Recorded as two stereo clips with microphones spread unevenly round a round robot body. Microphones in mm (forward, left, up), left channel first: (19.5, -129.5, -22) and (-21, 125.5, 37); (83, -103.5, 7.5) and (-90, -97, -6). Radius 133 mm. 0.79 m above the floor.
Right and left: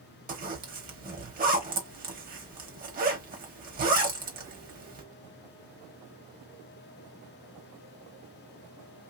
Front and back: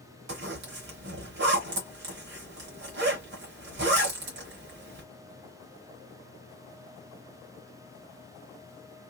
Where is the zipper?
150° left, 1.1 m.